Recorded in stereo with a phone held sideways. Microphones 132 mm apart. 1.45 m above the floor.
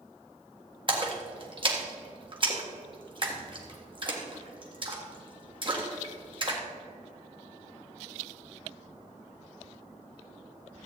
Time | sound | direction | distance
0.9 | a splash | 40° right (ahead or behind) | 1.7 m